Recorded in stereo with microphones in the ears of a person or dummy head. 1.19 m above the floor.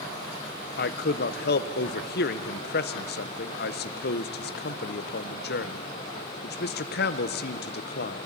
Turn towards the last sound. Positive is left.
turn(degrees=55)  # may be behind; listen again after turning